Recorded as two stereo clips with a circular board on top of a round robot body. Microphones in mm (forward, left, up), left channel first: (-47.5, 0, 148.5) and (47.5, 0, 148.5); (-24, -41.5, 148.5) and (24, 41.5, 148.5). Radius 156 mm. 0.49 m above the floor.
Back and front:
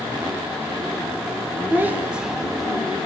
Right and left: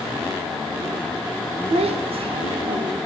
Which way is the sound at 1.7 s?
70° left.